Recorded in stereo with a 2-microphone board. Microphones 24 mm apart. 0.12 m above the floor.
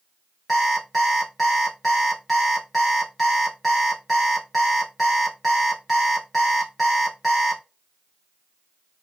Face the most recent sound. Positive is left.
turn(degrees=5)  # may be behind; listen again after turning